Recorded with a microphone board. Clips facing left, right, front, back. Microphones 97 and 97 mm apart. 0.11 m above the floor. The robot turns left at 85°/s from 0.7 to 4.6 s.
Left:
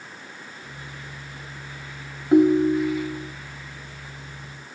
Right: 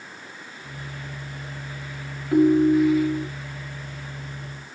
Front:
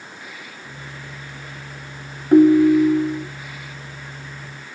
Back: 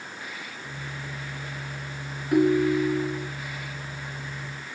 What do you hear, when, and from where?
2.3 s a ringtone: 35° left, 1.3 m; by 3.2 s 45° right, 1.3 m